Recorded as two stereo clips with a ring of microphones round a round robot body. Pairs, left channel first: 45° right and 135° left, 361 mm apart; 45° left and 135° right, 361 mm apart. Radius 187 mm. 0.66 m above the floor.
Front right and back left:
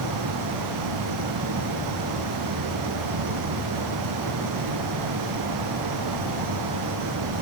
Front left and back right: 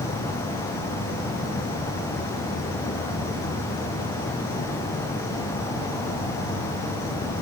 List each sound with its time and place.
0.0 s an insect: 120° left, 2.5 m